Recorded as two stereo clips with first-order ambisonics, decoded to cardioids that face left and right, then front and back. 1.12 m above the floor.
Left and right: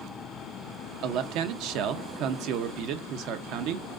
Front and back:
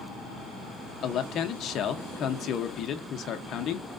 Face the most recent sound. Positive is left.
turn(degrees=-55)